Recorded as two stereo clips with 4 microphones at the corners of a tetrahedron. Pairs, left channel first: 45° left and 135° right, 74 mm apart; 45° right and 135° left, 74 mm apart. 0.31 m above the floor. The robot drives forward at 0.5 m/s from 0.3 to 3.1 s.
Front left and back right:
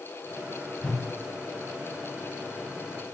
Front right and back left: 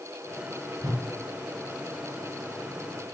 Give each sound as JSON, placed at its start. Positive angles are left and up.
{"t": 0.8, "sound": "a whoosh", "azimuth_deg": 105, "distance_m": 3.0}